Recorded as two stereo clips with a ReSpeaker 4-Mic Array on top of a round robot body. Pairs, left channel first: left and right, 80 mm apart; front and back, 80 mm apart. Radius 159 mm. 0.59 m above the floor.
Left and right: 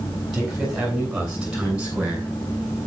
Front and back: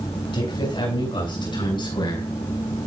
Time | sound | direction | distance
0.3 | a man speaking | 5° right | 9 m